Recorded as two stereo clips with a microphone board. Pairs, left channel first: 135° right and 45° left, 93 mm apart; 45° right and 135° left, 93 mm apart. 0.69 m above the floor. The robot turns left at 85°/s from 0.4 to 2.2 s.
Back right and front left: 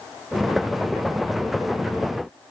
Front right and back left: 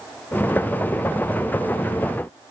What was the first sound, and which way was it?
Only background noise.